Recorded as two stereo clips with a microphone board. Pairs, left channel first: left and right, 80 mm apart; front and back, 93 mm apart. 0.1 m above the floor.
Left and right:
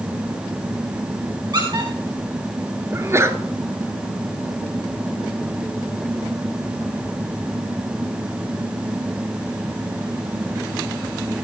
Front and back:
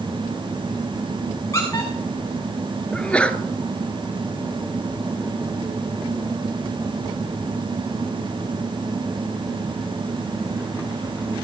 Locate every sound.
1.5 s a squeak: 55° right, 5.5 m
2.9 s a sneeze: 70° right, 1.4 m